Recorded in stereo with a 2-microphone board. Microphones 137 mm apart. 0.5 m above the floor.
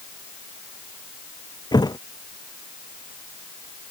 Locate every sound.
1.7 s a thud: 30° left (ahead or behind)